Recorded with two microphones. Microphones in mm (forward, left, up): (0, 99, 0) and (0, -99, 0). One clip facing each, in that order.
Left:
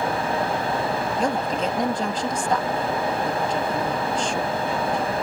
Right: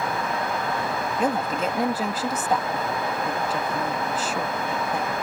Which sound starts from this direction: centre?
A woman speaking, at 1.2 s.